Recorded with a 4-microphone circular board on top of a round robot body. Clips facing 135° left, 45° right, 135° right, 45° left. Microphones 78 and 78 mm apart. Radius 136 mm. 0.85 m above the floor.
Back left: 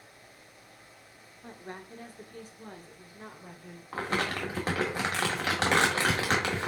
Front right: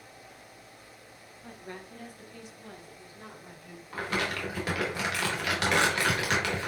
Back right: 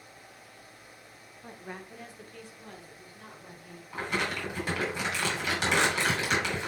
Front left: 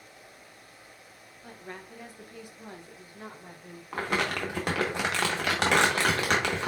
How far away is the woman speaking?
About 0.9 m.